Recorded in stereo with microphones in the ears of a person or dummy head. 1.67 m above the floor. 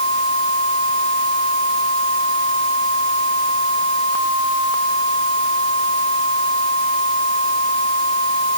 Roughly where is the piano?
I don't hear a piano.